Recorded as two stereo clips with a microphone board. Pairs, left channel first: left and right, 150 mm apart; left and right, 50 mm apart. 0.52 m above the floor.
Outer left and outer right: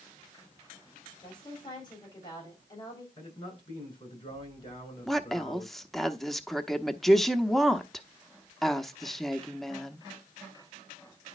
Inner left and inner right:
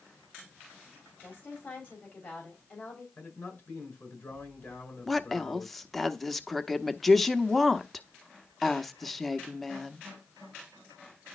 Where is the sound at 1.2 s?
30° left (ahead or behind), 3.5 m.